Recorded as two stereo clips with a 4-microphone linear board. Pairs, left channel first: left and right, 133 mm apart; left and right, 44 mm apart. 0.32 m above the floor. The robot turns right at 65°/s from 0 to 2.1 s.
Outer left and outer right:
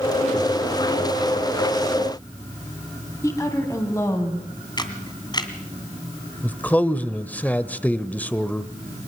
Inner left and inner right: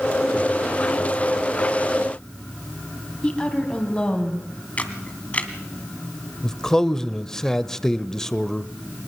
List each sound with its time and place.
3.2 s a woman speaking: 25° left (ahead or behind), 2.5 m
4.8 s a camera shutter: 30° left (ahead or behind), 2 m
6.4 s a man speaking: 10° left (ahead or behind), 0.9 m